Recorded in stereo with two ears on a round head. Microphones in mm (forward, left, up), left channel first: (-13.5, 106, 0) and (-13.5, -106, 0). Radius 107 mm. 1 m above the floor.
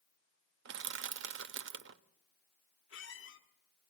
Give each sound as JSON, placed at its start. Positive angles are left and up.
{"t": 0.7, "sound": "crushing", "side_deg": -55, "distance_m": 0.6}
{"t": 2.9, "sound": "a squeak", "side_deg": 60, "distance_m": 1.6}